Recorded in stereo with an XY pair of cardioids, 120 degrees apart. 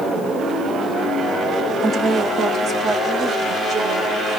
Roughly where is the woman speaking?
Ahead right.